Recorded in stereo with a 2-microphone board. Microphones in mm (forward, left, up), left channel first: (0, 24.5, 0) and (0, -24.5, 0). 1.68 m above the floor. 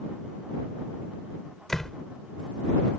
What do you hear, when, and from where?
1.7 s a door slam: 10° left (ahead or behind)